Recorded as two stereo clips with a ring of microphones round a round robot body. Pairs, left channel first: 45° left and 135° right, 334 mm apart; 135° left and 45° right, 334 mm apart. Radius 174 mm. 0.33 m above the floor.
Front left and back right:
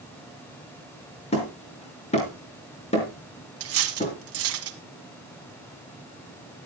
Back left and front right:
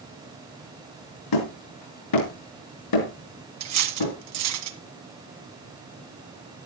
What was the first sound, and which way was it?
Hammering, 115° left.